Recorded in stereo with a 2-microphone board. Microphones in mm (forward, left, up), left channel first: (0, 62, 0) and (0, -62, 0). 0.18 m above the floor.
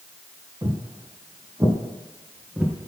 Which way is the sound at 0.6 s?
35° right (ahead or behind).